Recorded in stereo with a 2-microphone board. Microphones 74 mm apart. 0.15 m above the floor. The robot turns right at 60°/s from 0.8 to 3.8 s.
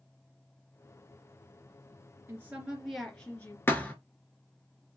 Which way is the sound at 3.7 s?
30° left (ahead or behind).